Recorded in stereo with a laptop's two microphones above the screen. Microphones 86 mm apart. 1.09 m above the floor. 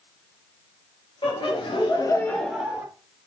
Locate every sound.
1.2 s laughter: 85° left, 1.3 m; by 2.9 s 20° right (ahead or behind), 1.0 m